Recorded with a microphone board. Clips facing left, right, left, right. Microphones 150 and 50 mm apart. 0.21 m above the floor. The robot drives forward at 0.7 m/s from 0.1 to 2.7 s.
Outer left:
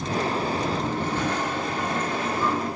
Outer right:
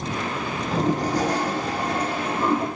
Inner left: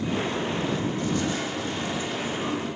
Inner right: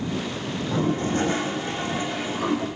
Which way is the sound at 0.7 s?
40° right (ahead or behind).